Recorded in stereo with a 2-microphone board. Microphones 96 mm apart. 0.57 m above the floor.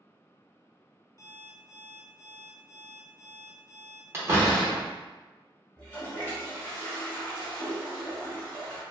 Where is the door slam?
25° right (ahead or behind), 0.7 m.